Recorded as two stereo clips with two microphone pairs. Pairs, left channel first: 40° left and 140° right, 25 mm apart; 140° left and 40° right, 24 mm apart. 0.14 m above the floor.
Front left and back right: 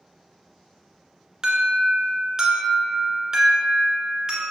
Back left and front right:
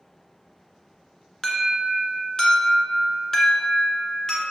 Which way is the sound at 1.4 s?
175° left.